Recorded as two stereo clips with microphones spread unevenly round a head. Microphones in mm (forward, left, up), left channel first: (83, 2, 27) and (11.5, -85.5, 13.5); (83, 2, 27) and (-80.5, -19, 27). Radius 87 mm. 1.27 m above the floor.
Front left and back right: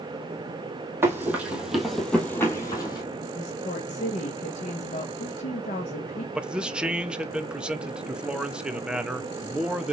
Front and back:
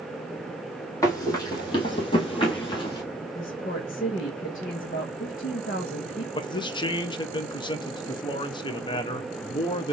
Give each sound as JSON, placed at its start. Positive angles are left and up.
{"t": 1.0, "sound": "running footsteps", "azimuth_deg": -60, "distance_m": 1.8}
{"t": 3.4, "sound": "a woman speaking", "azimuth_deg": 50, "distance_m": 0.9}
{"t": 6.3, "sound": "a man speaking", "azimuth_deg": -50, "distance_m": 0.8}